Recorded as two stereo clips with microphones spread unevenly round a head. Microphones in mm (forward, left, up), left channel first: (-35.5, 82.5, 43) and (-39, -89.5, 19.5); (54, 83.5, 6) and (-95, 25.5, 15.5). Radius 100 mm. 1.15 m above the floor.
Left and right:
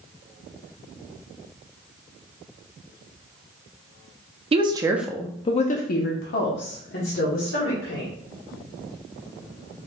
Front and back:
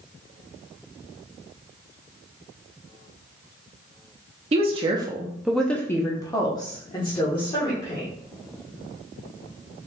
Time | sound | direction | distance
4.5 | a woman speaking | 115° right | 0.6 m